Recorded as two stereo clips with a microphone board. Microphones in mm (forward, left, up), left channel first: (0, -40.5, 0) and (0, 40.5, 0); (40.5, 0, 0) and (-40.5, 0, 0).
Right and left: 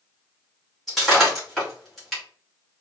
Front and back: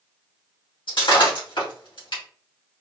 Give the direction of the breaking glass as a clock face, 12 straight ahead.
12 o'clock.